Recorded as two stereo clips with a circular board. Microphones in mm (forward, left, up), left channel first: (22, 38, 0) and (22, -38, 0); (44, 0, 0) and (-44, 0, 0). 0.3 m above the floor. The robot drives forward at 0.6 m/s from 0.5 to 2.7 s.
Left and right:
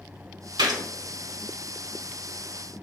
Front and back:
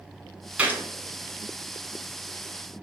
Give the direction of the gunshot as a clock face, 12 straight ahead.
4 o'clock.